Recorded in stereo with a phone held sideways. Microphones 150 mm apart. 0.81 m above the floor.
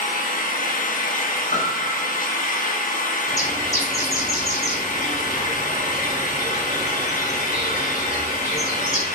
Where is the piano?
45° left (ahead or behind), 0.7 m.